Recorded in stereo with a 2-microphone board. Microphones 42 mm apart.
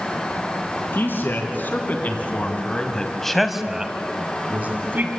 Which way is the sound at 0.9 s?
60° left (ahead or behind).